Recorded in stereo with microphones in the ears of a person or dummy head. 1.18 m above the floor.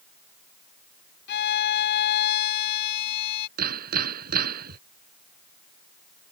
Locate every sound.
1.3 s a violin: 70° left (ahead or behind)
3.6 s hammering: 55° right (ahead or behind)